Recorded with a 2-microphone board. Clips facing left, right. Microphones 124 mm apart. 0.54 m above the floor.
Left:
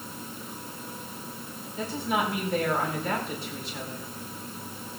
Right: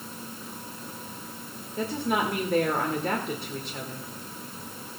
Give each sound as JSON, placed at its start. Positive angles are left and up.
{"t": 1.8, "sound": "a woman speaking", "side_deg": -55, "distance_m": 1.9}